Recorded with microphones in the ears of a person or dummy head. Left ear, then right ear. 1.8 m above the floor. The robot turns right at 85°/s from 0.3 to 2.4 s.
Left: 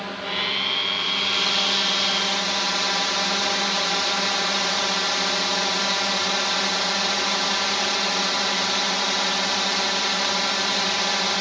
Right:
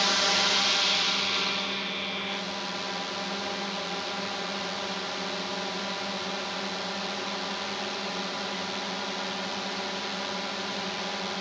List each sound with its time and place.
0.0 s a drone: 85° right; by 11.4 s 95° left